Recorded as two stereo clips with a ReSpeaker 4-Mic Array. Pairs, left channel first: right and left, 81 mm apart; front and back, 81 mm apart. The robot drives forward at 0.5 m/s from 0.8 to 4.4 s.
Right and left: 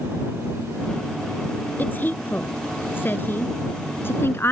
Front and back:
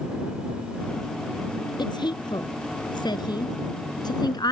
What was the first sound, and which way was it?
A woman speaking, 25° right.